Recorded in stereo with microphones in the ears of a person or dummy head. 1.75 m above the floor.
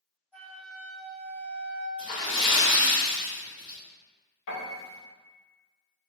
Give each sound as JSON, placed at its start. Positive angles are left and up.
{"t": 0.3, "sound": "a flute", "side_deg": 10, "distance_m": 1.7}
{"t": 2.0, "sound": "a splash", "side_deg": 30, "distance_m": 1.5}
{"t": 4.5, "sound": "a piano", "side_deg": 60, "distance_m": 1.2}